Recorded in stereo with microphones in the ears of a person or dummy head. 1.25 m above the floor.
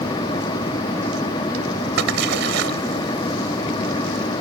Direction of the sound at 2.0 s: 70° right (ahead or behind).